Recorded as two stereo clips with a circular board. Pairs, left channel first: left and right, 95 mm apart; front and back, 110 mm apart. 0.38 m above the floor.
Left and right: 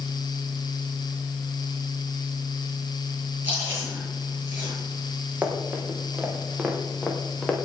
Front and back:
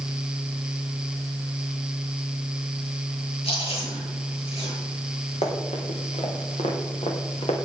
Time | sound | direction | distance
3.4 | chewing | 20° right | 7.5 m
5.4 | running footsteps | 15° right | 4 m